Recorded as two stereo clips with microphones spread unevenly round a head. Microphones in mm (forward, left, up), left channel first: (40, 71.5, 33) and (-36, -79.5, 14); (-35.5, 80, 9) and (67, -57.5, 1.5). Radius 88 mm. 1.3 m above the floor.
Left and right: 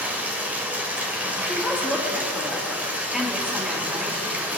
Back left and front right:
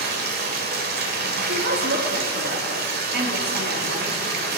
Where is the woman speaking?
30° right, 2.5 m.